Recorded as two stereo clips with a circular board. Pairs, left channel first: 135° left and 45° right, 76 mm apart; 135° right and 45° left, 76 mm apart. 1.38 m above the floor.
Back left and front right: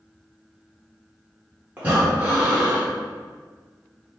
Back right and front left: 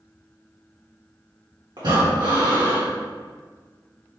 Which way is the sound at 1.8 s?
25° left.